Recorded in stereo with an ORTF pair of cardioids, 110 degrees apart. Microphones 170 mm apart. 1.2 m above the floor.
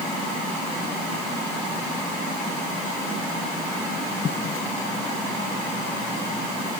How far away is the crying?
No crying in this recording.